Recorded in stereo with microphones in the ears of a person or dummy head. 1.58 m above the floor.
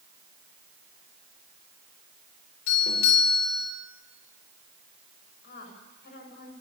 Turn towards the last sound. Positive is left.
turn(degrees=55)  # may be behind; listen again after turning